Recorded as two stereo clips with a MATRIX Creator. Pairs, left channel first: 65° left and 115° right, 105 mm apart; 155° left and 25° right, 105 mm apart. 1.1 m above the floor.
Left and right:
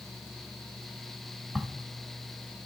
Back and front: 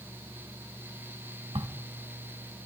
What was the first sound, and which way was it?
A crack, 25° right.